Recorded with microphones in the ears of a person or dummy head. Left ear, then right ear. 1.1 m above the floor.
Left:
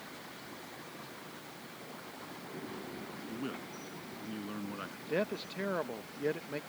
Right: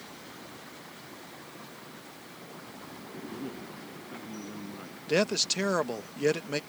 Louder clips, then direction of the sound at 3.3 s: Right 1 dB; 40° left (ahead or behind).